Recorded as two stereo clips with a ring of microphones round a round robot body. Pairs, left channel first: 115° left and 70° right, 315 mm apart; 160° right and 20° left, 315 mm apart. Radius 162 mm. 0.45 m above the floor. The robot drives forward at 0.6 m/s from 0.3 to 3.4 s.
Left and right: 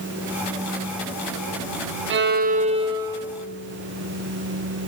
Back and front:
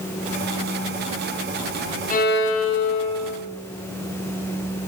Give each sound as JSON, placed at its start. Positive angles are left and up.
{"t": 2.1, "sound": "a violin", "azimuth_deg": -100, "distance_m": 0.7}